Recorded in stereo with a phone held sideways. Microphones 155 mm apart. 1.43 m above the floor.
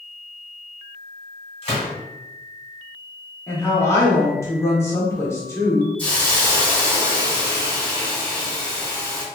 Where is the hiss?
15° left (ahead or behind), 1.8 m.